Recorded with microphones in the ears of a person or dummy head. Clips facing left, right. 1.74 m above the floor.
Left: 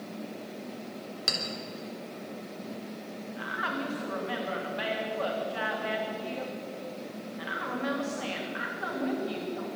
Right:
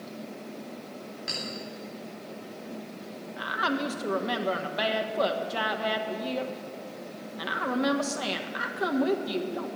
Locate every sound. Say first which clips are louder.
1.3 s a clink: left 3 dB; 65° left (ahead or behind), 3.5 m
3.4 s a woman speaking: right 6 dB; 65° right (ahead or behind), 1.7 m